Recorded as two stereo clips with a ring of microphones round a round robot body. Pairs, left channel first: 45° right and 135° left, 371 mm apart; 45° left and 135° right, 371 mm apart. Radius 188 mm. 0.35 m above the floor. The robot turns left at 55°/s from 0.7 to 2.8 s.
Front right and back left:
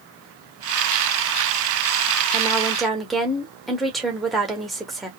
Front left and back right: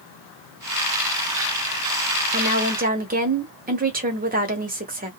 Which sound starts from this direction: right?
A woman speaking, at 2.3 s.